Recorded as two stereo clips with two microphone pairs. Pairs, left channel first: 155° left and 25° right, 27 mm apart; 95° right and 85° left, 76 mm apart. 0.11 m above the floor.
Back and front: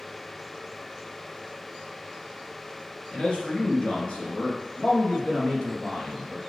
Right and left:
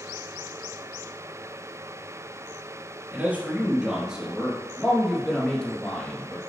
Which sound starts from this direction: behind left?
A man speaking, at 3.1 s.